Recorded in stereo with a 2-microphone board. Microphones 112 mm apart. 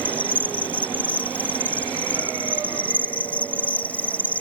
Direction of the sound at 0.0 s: 15° left (ahead or behind).